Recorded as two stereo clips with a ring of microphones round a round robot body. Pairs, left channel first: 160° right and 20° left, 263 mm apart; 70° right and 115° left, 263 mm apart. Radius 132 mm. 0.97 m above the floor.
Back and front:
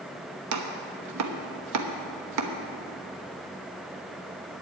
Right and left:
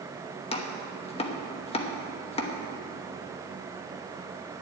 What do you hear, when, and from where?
0.5 s chopping: straight ahead, 1.1 m